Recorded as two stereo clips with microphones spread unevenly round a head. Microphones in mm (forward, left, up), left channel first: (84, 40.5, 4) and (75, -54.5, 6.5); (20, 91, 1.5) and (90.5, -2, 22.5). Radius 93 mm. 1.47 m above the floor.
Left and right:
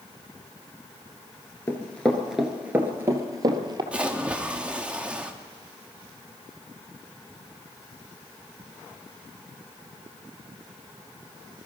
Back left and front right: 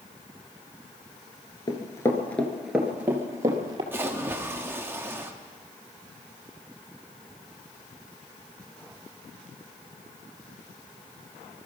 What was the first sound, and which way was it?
Running footsteps, 115° left.